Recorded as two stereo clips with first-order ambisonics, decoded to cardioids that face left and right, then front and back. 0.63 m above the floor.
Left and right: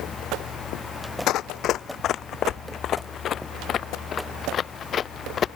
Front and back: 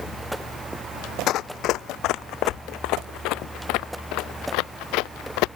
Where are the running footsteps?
45° left; by 5.5 s 25° left.